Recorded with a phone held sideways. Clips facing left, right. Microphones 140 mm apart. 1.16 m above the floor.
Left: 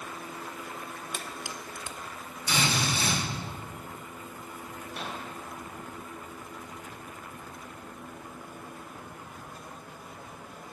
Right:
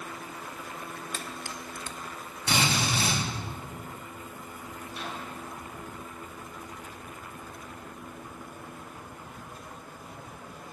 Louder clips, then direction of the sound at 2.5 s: Right 1 dB; 75° right (ahead or behind).